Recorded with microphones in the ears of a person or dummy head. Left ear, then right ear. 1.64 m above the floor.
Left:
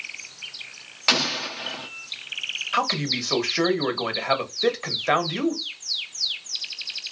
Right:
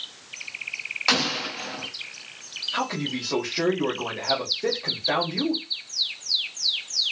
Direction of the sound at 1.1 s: 15° left (ahead or behind).